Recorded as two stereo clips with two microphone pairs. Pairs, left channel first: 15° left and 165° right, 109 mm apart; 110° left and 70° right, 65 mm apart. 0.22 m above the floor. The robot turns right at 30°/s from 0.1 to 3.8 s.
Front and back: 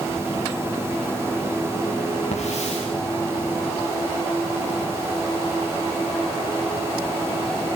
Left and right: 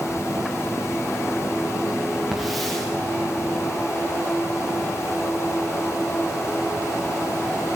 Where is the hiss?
15° left, 6.5 m; by 2.9 s 30° left, 6.5 m.